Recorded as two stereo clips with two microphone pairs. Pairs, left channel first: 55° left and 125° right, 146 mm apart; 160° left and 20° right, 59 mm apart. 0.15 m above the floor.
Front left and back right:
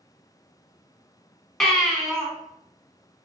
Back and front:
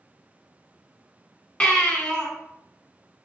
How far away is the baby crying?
About 0.5 m.